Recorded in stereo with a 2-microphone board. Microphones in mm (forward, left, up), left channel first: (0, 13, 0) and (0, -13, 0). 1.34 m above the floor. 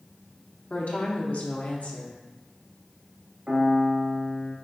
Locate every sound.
0.7 s a woman speaking: 65° left (ahead or behind), 1.0 m
3.5 s a piano: 60° right (ahead or behind), 1.6 m